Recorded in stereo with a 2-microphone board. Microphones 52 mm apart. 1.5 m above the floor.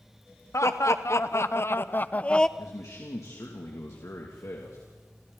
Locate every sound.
0.5 s laughter: 70° left (ahead or behind), 1.4 m; by 2.5 s 15° left (ahead or behind), 0.5 m
2.6 s a man speaking: 70° left (ahead or behind), 2.5 m